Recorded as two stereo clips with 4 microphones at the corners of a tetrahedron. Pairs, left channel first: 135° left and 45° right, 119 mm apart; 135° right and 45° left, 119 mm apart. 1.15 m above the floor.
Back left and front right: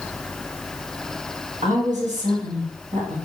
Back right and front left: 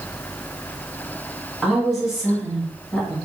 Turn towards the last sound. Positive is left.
turn(degrees=-40)